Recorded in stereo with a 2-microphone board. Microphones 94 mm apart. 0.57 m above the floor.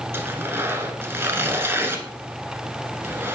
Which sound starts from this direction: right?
Tearing paper, at 0.1 s.